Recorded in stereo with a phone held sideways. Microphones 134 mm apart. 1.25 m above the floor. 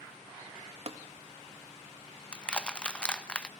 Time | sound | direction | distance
0.9 | tapping | 50° right (ahead or behind) | 1.7 m
2.3 | crushing | 5° left (ahead or behind) | 0.8 m